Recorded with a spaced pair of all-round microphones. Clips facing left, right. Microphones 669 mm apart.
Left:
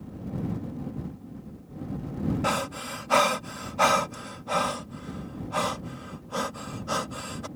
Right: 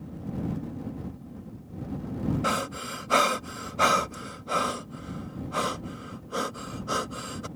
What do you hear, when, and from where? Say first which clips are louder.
2.4 s breathing: left 1 dB; 25° left (ahead or behind)